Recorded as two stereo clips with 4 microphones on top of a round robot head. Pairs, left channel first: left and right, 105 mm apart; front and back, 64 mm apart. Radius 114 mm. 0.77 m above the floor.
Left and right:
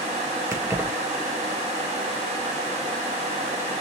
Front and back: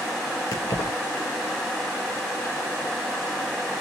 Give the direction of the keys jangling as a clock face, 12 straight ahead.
1 o'clock.